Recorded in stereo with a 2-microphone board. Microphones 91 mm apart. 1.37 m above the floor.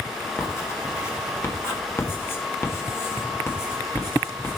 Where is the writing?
25° left (ahead or behind), 1.8 m.